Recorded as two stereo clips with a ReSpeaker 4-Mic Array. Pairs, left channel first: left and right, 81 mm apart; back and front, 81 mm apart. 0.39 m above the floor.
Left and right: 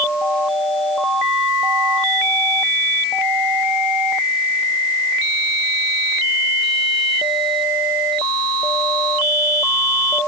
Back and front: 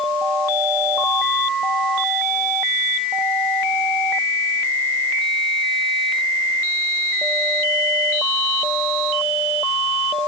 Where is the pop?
No pop in this recording.